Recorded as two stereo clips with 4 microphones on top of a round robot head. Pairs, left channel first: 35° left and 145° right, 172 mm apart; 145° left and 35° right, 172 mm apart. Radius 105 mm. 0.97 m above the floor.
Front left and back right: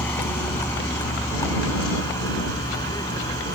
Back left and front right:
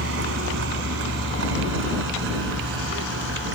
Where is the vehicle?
45° right; by 3.5 s 35° right.